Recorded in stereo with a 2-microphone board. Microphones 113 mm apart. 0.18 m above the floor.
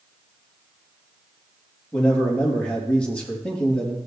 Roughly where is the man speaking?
Centre.